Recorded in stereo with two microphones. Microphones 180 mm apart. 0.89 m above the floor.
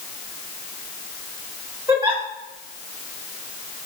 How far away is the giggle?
About 1.8 m.